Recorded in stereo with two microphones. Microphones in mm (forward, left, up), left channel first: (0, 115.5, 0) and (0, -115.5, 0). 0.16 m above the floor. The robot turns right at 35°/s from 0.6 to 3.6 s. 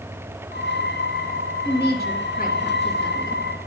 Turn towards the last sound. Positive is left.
turn(degrees=170)